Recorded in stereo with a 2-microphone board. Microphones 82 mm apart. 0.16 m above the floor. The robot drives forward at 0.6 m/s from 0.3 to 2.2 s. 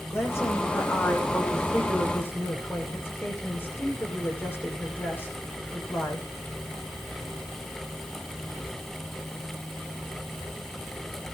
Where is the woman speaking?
30° left (ahead or behind), 8 m; by 6.3 s 25° left (ahead or behind), 9 m.